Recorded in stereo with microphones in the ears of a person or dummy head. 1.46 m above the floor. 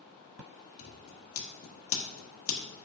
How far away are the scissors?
About 1.1 m.